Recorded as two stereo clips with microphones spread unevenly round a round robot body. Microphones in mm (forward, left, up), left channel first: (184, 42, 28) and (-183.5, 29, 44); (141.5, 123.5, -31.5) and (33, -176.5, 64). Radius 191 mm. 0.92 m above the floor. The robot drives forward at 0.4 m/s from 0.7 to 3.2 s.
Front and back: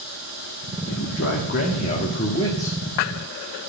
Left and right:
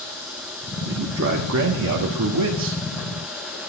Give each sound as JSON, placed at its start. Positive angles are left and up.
{"t": 0.9, "sound": "a man speaking", "azimuth_deg": -55, "distance_m": 1.7}